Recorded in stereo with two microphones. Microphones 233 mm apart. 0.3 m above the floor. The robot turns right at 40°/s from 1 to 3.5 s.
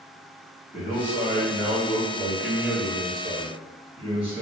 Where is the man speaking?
120° left, 1.2 m; by 4.4 s 140° right, 1.2 m.